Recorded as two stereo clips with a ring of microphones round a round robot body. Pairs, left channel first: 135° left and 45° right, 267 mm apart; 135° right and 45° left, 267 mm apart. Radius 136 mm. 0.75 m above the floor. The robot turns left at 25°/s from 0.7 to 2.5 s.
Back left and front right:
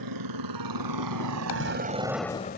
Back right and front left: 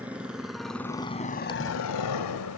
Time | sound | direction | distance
0.0 | a motorcycle | 40° right | ?
1.5 | a dropped coin | 150° left | ?